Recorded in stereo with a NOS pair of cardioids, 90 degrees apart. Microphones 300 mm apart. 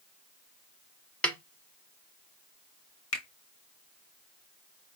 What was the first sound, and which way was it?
A snare drum, 5° left.